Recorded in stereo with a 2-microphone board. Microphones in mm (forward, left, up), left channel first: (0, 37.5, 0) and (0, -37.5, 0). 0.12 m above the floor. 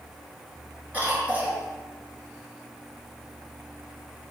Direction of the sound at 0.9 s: 20° right (ahead or behind).